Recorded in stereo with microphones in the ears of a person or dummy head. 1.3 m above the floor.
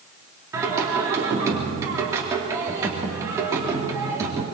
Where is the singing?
20° right (ahead or behind), 3.5 m.